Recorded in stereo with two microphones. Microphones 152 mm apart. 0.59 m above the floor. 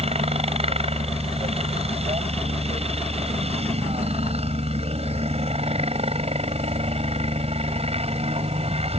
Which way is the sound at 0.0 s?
40° right (ahead or behind).